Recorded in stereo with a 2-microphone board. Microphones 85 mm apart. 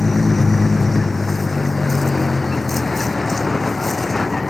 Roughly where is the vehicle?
Centre.